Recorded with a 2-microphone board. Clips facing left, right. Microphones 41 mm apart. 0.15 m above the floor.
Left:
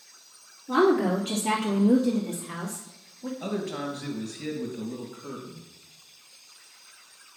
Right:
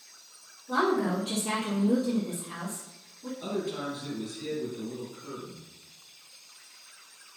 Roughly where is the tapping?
No tapping in this recording.